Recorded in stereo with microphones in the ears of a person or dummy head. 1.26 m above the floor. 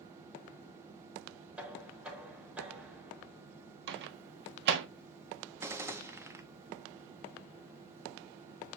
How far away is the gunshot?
About 0.8 m.